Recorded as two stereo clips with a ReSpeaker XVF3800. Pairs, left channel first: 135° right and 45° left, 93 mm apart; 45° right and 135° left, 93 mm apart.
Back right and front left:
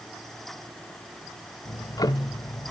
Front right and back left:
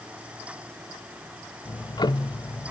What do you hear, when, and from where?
1.6 s ticking: 85° right, 0.6 m